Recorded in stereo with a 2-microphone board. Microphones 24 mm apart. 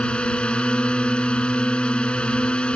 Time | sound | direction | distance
0.0 | a drone | 50° left (ahead or behind) | ?